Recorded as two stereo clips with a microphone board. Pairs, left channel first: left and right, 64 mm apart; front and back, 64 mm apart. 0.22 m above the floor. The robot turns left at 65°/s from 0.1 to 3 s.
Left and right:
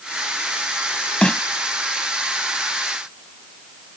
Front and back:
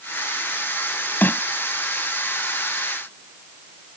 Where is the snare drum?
30° left; by 1.4 s 20° left.